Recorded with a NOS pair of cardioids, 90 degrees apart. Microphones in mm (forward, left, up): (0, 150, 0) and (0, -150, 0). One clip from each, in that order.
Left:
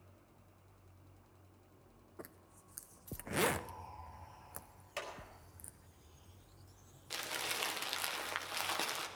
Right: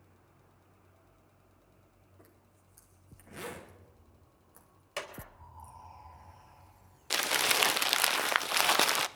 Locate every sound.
2.2 s a zipper: 60° left, 1.0 m
5.0 s a clap: 45° right, 3.5 m
7.1 s crumpling: 60° right, 0.6 m